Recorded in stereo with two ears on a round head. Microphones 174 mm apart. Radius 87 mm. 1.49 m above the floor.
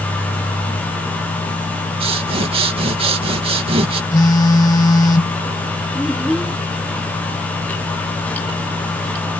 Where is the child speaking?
Centre (ahead or behind).